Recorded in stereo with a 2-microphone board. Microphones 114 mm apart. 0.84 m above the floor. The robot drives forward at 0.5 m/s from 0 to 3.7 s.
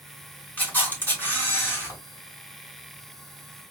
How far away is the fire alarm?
No fire alarm in this recording.